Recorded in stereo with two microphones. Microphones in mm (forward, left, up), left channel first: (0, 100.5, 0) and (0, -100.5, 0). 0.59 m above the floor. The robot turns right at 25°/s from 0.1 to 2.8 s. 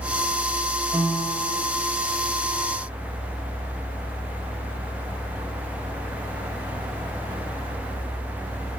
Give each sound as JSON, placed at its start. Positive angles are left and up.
{"t": 0.9, "sound": "a piano", "side_deg": -15, "distance_m": 2.5}